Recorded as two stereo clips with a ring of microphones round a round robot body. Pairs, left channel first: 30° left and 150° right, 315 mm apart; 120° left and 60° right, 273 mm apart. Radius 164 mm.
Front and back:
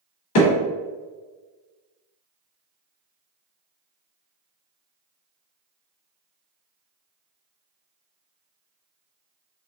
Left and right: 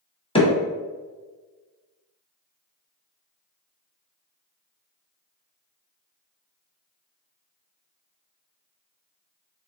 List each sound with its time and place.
0.3 s hammering: 50° left, 1.6 m